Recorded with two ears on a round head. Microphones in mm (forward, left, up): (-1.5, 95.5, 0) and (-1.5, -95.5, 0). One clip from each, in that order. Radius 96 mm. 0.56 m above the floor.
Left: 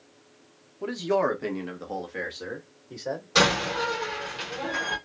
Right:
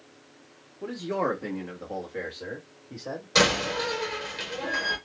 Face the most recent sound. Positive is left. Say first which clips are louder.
# even
turn(degrees=-15)  # may be behind; listen again after turning